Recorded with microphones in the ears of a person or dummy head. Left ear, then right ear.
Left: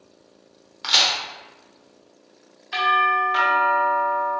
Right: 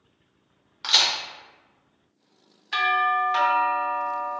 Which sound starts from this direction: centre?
A crack, at 0.8 s.